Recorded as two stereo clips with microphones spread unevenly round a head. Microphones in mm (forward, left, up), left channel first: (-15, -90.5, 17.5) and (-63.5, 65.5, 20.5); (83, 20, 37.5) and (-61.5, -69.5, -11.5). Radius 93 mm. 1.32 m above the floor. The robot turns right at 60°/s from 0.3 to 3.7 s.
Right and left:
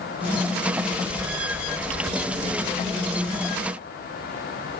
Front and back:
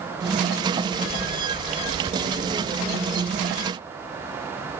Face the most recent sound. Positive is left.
No sound to turn to.